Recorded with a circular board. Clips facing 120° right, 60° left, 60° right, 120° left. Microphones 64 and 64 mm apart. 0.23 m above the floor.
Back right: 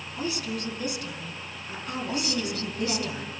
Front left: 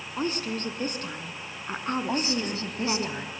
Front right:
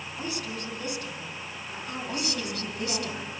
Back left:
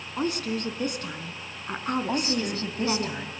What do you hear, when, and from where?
0.2 s a woman speaking: 100° left, 2 m
2.1 s a woman speaking: 95° left, 1.6 m